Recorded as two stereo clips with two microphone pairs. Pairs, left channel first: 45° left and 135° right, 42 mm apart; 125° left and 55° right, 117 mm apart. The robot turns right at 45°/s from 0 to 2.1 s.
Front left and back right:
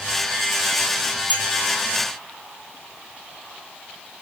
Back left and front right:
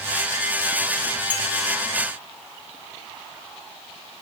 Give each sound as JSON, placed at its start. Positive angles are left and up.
{"t": 1.3, "sound": "a clink", "azimuth_deg": 170, "distance_m": 3.5}